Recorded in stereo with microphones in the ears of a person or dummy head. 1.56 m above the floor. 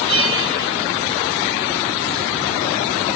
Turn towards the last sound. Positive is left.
turn(degrees=-30)  # may be behind; listen again after turning